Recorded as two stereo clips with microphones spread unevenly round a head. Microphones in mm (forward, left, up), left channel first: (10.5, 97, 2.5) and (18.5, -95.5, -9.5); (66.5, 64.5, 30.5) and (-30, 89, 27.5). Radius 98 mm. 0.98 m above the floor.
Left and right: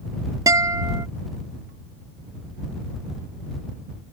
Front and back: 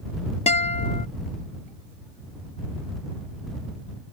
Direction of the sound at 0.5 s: 15° right.